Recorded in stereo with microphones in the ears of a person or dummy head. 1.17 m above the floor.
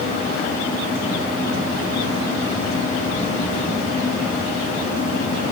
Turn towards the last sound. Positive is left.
No sound to turn to.